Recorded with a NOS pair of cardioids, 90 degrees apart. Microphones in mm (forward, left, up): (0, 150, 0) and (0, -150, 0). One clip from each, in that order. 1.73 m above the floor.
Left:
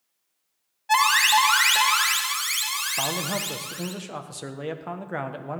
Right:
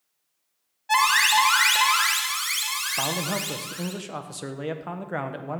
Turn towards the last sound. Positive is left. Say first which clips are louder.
# even
turn(degrees=-5)